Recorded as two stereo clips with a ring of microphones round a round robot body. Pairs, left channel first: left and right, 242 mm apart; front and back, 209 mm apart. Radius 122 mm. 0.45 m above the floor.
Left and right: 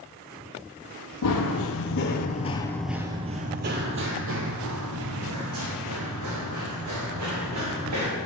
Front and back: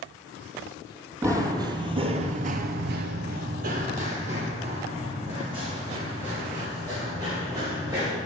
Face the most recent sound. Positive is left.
turn(degrees=-105)